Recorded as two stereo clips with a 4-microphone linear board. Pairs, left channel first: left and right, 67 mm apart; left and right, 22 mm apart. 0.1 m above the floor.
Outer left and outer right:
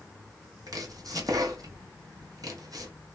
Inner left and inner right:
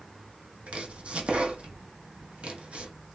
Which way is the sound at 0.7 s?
65° right (ahead or behind).